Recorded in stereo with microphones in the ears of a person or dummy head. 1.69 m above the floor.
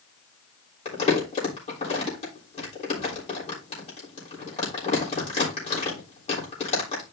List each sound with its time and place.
0.8 s crumpling: 40° left (ahead or behind), 3.5 m